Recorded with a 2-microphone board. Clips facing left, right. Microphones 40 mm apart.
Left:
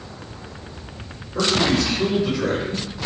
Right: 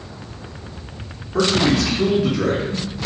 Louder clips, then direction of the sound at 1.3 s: Right 2 dB; 70° right (ahead or behind).